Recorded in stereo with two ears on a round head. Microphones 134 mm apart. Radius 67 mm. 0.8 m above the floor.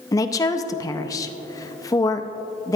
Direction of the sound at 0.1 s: 25° left (ahead or behind).